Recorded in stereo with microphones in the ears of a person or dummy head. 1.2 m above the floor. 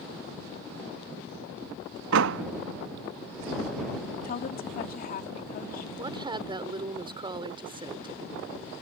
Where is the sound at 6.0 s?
25° right (ahead or behind).